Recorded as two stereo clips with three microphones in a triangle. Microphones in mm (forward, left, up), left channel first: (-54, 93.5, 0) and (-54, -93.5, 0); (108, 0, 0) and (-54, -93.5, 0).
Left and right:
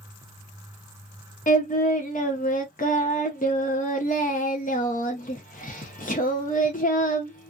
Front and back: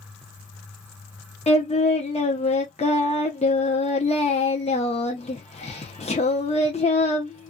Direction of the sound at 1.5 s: 70° left.